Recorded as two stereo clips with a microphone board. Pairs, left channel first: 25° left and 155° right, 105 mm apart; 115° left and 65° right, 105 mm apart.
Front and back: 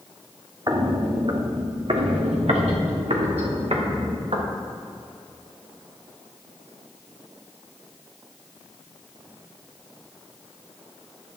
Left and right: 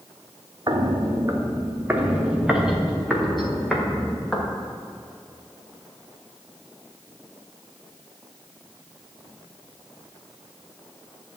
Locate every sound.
0.7 s footsteps: 110° right, 1.2 m; by 4.5 s 165° right, 3 m